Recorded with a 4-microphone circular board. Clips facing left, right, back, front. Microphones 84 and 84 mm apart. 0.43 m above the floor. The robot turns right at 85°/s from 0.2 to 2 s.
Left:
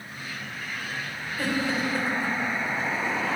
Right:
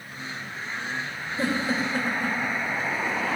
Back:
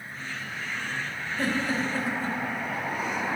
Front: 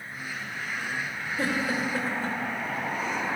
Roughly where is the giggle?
Ahead right.